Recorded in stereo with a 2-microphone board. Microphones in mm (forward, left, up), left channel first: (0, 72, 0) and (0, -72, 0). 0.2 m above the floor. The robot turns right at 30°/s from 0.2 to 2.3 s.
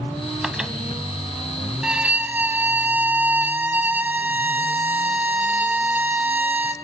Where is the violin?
5° right (ahead or behind), 0.9 m; by 6.8 s 15° right (ahead or behind), 0.9 m.